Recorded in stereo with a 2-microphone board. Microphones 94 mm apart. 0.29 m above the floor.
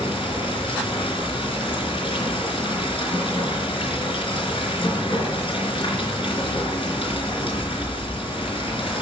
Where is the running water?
75° left (ahead or behind), 4 m.